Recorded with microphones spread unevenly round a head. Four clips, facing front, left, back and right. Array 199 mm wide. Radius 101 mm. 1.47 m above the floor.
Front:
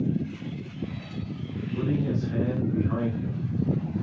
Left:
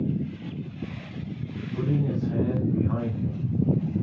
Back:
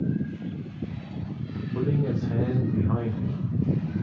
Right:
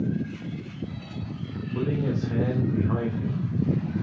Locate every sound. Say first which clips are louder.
1.8 s a man speaking: even, back 1 dB; 140° right, 3 m; by 3.9 s 115° right, 2 m